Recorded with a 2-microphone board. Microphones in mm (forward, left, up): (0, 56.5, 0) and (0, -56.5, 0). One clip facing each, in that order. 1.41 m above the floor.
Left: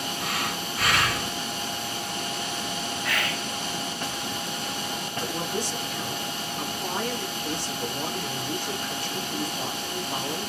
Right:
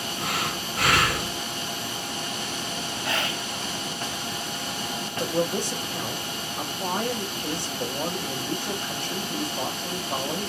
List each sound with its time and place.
0.2 s breathing: 85° right, 3 m
3.0 s whispering: 25° right (ahead or behind), 0.5 m
5.2 s a man speaking: 50° right (ahead or behind), 1.9 m